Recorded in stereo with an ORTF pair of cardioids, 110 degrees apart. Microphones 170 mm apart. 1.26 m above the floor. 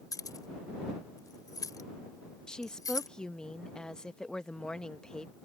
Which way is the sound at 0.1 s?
20° left.